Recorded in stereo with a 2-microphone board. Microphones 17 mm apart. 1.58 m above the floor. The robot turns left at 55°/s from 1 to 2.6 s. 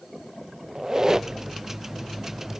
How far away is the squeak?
About 0.7 m.